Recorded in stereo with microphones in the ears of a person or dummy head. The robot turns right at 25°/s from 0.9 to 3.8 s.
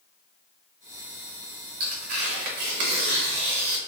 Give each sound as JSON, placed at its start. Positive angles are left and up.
{"t": 1.8, "sound": "tearing paper", "azimuth_deg": -125, "distance_m": 0.7}